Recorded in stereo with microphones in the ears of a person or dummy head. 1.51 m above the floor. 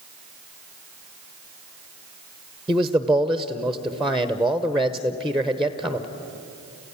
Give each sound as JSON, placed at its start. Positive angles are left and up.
{"t": 2.7, "sound": "a man speaking", "side_deg": -5, "distance_m": 0.9}